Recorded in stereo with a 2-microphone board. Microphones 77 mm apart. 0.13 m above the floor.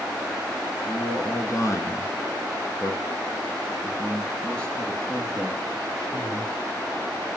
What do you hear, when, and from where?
0.9 s a man speaking: 50° left (ahead or behind), 2 m; by 6.5 s centre (ahead or behind), 3 m